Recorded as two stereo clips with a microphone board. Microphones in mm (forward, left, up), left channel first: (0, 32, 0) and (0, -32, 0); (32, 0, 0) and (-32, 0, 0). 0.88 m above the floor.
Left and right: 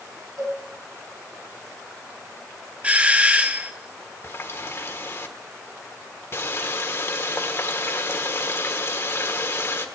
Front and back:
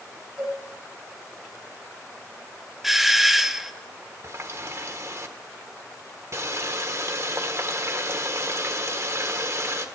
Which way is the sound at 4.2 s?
140° left.